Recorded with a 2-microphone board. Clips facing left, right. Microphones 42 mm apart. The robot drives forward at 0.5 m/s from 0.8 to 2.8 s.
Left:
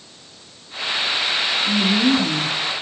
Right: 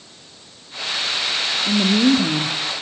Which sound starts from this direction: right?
A woman speaking, at 1.7 s.